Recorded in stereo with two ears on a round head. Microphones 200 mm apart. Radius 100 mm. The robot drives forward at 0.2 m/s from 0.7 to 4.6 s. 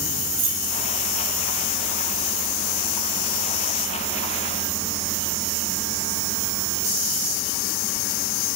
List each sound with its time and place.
0.4 s keys jangling: 40° right (ahead or behind), 1.9 m